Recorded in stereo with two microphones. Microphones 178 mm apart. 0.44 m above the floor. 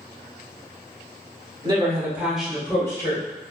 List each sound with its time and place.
1.6 s a woman speaking: 30° right (ahead or behind), 1.2 m; by 3.2 s 25° left (ahead or behind), 1.3 m